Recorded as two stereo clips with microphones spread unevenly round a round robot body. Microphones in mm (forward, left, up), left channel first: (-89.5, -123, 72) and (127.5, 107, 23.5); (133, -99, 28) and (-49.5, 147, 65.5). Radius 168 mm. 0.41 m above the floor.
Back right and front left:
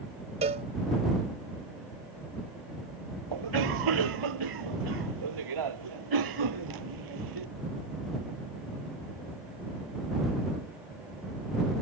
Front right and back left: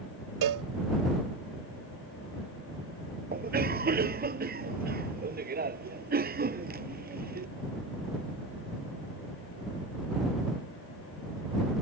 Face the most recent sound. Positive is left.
turn(degrees=65)